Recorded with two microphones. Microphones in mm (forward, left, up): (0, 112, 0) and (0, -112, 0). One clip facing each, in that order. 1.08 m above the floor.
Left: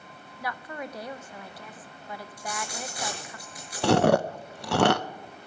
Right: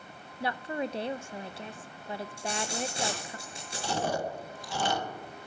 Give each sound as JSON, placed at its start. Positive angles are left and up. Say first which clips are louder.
{"t": 0.4, "sound": "a woman speaking", "louder": "right 4 dB", "side_deg": -25, "distance_m": 0.6}
{"t": 2.4, "sound": "a dropped coin", "louder": "right 3 dB", "side_deg": -25, "distance_m": 6.0}
{"t": 3.8, "sound": "chewing", "louder": "left 11 dB", "side_deg": 70, "distance_m": 0.6}